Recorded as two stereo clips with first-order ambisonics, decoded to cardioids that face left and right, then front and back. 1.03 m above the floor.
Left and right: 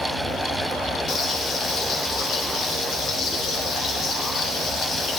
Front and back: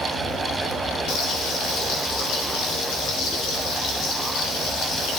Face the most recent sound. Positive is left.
turn(degrees=30)